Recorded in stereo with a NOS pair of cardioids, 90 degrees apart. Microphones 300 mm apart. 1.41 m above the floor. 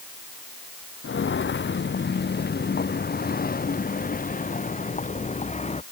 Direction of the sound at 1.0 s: 40° left.